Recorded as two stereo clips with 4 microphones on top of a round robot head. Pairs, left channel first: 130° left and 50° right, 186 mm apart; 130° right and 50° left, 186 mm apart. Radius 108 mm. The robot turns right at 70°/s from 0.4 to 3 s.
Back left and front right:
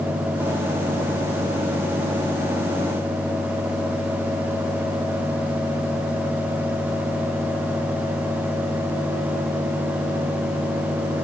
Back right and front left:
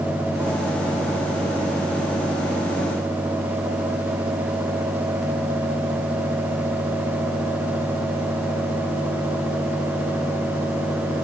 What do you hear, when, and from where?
Only background noise.